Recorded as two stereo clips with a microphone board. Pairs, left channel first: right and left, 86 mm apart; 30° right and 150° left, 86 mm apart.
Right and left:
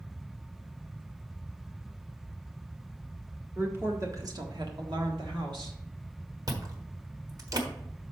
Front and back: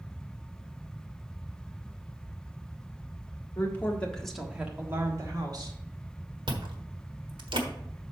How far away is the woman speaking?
About 1.7 m.